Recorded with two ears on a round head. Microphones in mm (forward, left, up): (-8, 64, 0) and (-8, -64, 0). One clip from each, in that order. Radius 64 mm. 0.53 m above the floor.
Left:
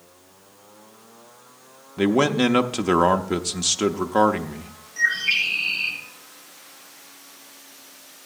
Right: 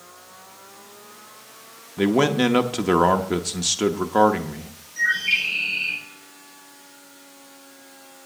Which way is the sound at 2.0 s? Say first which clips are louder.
Even; 5° left (ahead or behind).